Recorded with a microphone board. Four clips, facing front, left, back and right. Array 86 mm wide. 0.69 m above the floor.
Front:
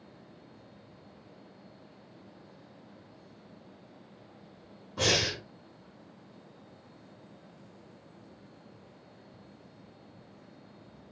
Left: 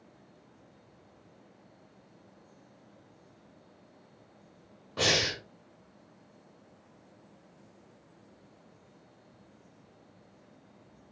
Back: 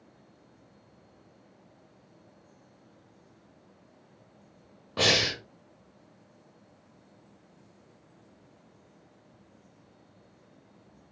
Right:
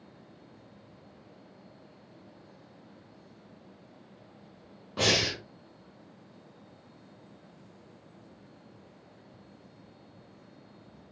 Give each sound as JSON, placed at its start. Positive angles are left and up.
{"t": 5.0, "sound": "breathing", "azimuth_deg": -175, "distance_m": 1.0}